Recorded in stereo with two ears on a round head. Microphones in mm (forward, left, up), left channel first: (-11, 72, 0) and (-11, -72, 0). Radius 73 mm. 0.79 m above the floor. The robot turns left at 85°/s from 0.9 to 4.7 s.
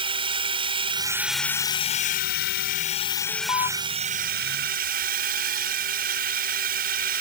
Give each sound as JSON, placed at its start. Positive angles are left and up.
{"t": 0.0, "sound": "a drone", "azimuth_deg": -140}
{"t": 3.3, "sound": "an alarm", "azimuth_deg": 175}